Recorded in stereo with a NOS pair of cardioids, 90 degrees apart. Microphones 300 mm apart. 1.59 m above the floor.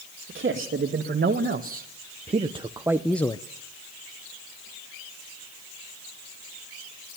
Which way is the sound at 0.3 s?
35° right.